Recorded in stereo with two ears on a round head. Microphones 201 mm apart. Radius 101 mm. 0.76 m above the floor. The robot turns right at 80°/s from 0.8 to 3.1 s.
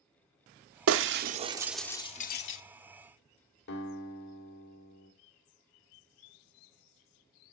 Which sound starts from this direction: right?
Breaking glass, at 0.9 s.